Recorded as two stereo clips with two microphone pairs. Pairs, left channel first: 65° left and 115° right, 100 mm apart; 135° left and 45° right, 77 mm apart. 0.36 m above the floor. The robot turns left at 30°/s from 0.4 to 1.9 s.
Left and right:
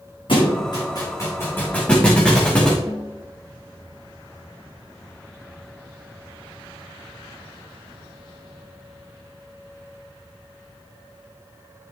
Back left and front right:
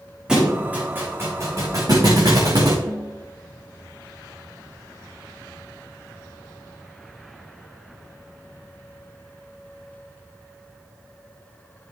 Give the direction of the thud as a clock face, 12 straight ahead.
11 o'clock.